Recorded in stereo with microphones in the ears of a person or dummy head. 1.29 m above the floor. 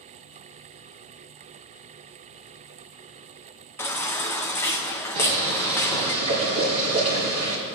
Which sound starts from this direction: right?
Boiling, at 5.2 s.